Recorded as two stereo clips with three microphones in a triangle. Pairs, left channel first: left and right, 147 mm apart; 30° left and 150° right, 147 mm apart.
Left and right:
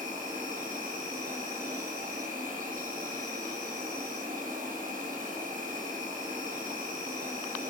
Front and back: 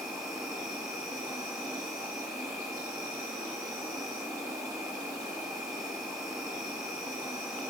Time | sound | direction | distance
0.0 | an insect | 80° right | 1.9 m